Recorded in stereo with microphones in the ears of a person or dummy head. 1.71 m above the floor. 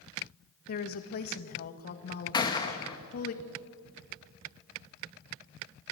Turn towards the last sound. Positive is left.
turn(degrees=20)  # may be behind; listen again after turning